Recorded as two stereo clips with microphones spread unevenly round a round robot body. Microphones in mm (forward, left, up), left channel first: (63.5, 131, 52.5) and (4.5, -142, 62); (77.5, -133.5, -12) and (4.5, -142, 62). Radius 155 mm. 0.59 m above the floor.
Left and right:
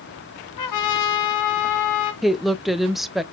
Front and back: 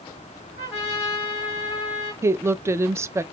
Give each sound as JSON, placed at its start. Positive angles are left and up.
{"t": 0.6, "sound": "a trumpet", "azimuth_deg": 75, "distance_m": 1.7}
{"t": 2.2, "sound": "a woman speaking", "azimuth_deg": -10, "distance_m": 0.6}